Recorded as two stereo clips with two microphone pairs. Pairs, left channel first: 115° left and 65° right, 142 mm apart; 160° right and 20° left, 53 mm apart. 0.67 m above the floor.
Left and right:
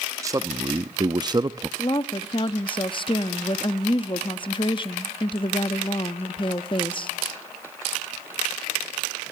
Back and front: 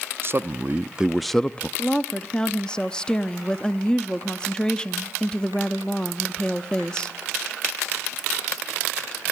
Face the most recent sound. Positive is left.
turn(degrees=130)